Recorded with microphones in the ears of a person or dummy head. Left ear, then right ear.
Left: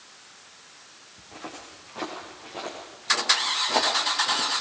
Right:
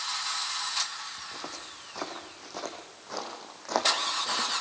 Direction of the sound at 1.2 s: 70° right (ahead or behind).